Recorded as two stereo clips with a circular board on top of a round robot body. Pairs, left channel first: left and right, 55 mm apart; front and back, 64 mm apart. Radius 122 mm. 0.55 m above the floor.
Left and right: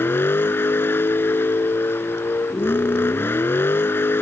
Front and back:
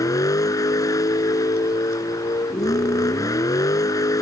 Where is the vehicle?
35° left.